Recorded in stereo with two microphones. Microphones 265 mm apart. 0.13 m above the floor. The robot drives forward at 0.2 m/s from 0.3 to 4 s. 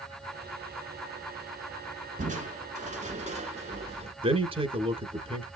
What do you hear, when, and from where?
2.2 s crushing: 30° right (ahead or behind), 1.3 m; by 4.1 s 25° right (ahead or behind), 1.4 m
4.2 s a man speaking: 20° right (ahead or behind), 1.3 m